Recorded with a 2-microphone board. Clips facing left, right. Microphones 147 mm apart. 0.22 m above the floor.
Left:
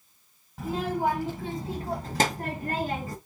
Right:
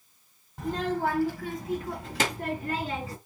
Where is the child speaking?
Centre (ahead or behind), 0.8 m; by 3.2 s 50° left (ahead or behind), 1.6 m.